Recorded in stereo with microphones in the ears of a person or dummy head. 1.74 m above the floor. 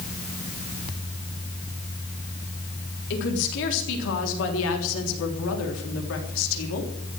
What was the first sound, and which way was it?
A woman speaking, 65° left (ahead or behind).